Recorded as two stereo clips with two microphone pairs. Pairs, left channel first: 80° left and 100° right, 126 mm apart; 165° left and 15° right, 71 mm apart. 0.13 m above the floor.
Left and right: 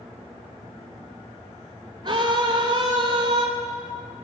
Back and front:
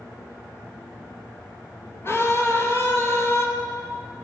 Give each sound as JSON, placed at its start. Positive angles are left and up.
{"t": 2.0, "sound": "a scream", "azimuth_deg": -145, "distance_m": 2.5}